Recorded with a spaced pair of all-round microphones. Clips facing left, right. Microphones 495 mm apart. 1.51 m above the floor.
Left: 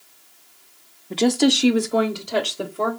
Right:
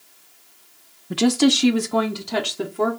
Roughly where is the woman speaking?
Right.